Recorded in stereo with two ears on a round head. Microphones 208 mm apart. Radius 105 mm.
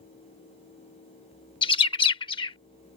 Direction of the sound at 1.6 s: 20° left (ahead or behind).